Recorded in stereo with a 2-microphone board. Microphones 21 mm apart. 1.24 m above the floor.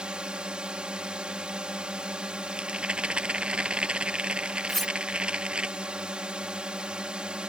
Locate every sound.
0.0 s a drone: 55° right (ahead or behind)
2.5 s a rattle: 70° right (ahead or behind)
4.7 s cutlery clinking: 15° left (ahead or behind)